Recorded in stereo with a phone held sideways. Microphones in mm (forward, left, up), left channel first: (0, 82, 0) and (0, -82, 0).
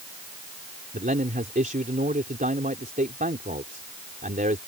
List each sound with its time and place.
0.9 s a man speaking: 60° right (ahead or behind)